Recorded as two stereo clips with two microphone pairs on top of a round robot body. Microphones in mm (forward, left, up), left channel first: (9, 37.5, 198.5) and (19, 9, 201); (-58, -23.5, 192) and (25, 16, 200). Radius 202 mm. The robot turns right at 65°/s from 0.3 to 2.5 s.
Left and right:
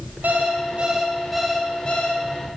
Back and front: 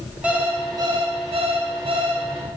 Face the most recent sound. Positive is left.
turn(degrees=90)